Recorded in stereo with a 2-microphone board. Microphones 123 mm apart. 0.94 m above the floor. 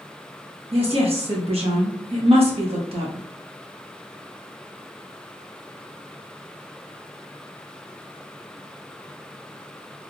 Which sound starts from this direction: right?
A woman speaking, at 0.7 s.